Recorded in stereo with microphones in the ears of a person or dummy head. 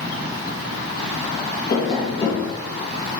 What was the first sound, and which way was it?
Tapping, 30° left (ahead or behind).